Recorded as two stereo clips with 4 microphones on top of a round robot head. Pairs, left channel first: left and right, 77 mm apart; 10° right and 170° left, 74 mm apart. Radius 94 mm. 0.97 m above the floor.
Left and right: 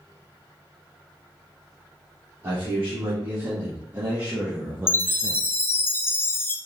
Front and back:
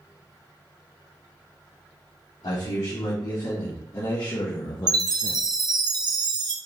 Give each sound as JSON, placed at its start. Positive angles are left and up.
{"t": 2.4, "sound": "a man speaking", "azimuth_deg": -25, "distance_m": 2.5}
{"t": 4.9, "sound": "a chime", "azimuth_deg": 150, "distance_m": 0.7}